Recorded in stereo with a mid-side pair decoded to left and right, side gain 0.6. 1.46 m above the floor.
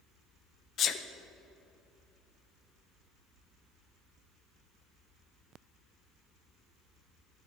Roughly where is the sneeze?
Ahead left.